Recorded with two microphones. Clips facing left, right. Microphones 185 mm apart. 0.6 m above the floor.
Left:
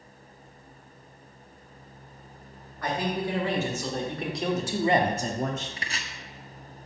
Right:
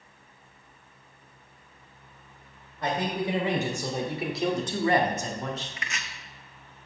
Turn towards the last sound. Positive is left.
turn(degrees=35)  # may be behind; listen again after turning